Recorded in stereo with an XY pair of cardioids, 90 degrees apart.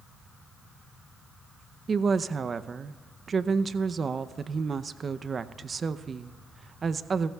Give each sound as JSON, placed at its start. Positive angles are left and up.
{"t": 1.9, "sound": "a woman speaking", "azimuth_deg": -45, "distance_m": 0.6}